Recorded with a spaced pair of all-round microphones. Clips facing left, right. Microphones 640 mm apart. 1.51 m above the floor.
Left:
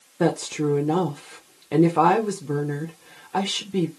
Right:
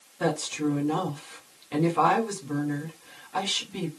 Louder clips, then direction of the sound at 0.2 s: Left 5 dB; 75° left (ahead or behind).